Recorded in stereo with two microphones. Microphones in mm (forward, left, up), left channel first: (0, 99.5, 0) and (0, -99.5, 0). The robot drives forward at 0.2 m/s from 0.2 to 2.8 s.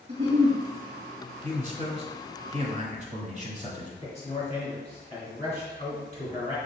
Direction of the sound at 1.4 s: 35° right (ahead or behind).